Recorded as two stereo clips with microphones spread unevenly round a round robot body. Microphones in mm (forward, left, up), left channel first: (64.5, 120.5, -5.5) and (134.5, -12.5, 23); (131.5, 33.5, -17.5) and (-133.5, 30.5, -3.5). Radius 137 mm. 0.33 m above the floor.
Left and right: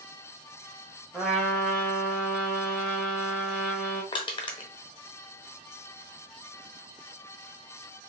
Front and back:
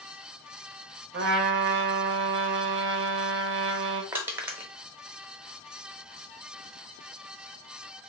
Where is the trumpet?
165° right, 0.7 m.